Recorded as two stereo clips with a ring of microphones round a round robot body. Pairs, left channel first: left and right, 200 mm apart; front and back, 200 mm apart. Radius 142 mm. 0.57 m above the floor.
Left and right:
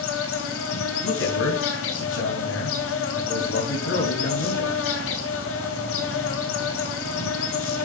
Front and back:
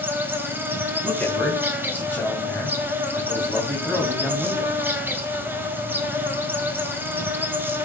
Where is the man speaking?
80° left, 3.5 m.